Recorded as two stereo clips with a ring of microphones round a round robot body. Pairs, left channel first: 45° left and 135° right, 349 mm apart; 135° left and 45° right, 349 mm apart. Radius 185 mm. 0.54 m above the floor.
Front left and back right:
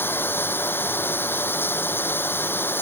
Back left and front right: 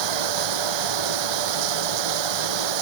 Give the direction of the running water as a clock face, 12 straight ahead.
1 o'clock.